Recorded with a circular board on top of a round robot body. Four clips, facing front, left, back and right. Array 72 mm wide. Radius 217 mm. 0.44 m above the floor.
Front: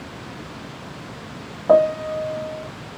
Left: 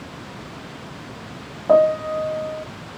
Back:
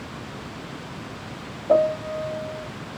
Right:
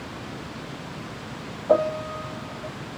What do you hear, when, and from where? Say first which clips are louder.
1.7 s a piano: left 6 dB, front 4 dB; 30° left, 0.6 m